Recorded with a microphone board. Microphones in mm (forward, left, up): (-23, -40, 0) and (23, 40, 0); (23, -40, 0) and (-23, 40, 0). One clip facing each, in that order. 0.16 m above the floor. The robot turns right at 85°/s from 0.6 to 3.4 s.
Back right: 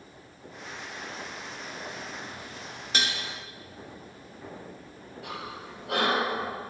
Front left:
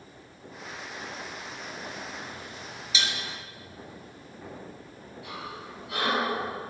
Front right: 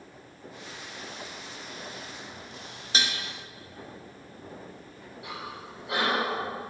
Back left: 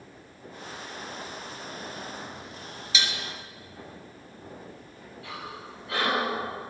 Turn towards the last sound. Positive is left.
turn(degrees=-130)